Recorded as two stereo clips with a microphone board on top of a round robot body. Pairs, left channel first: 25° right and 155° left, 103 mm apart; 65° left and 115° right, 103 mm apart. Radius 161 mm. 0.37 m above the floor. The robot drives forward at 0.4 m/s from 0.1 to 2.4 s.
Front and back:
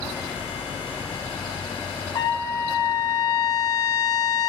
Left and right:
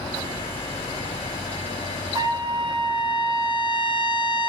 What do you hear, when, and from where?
2.1 s a trumpet: 70° right, 0.6 m; by 4.5 s 80° right, 0.5 m